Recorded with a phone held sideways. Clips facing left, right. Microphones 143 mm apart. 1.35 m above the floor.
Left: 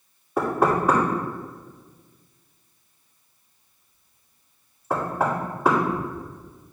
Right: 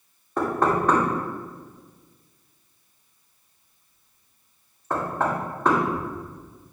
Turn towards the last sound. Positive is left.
turn(degrees=10)  # may be behind; listen again after turning